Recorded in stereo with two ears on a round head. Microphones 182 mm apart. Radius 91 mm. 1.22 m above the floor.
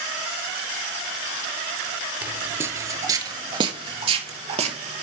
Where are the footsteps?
10° right (ahead or behind), 1.3 m; by 5.0 s 30° right (ahead or behind), 1.6 m.